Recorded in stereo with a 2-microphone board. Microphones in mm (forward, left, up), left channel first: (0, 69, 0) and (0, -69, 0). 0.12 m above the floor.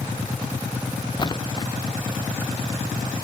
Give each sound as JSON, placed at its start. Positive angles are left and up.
{"t": 1.2, "sound": "a splash", "side_deg": 30}